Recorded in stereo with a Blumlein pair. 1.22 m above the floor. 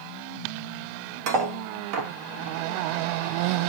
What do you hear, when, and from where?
1.3 s cutlery clinking: 40° right, 1.0 m